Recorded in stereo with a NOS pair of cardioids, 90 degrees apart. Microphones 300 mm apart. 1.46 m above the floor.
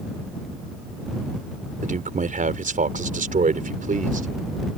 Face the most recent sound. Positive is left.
turn(degrees=-25)